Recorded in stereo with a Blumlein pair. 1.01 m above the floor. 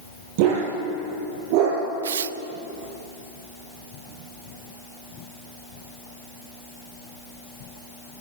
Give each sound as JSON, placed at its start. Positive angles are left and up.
{"t": 0.4, "sound": "a dog barking", "azimuth_deg": -45, "distance_m": 7.5}
{"t": 2.0, "sound": "tearing paper", "azimuth_deg": -65, "distance_m": 0.7}